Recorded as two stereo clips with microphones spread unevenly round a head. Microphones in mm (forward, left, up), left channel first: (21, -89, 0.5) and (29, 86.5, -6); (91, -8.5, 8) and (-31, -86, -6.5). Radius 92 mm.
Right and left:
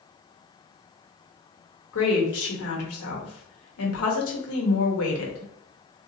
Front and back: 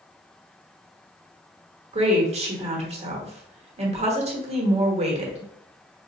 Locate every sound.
1.9 s a woman speaking: 100° right, 1.0 m